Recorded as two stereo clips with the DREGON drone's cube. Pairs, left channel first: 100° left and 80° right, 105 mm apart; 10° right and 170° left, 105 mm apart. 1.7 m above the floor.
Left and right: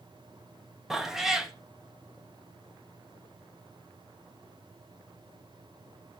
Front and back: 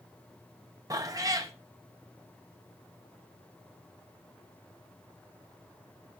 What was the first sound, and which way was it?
A cat meowing, 165° right.